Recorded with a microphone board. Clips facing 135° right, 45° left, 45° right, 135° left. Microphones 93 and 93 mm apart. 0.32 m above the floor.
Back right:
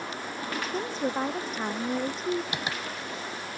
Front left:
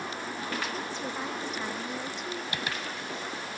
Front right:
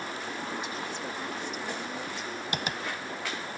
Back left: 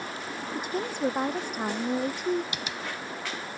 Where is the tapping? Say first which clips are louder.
Back right 1 dB, front right 3 dB; 70° right.